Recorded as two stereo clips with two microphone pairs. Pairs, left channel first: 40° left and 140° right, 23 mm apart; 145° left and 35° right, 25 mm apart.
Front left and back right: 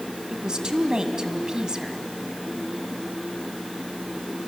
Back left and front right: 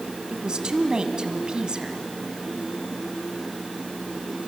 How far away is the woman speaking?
About 1.9 m.